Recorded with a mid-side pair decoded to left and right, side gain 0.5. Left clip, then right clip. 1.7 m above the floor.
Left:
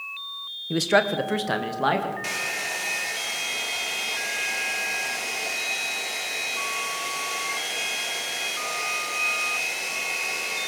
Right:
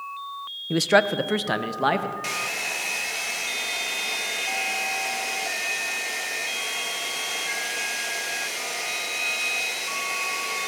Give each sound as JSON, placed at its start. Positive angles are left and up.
{"t": 0.7, "sound": "a man speaking", "azimuth_deg": -15, "distance_m": 1.2}
{"t": 2.2, "sound": "a hair dryer", "azimuth_deg": -10, "distance_m": 3.0}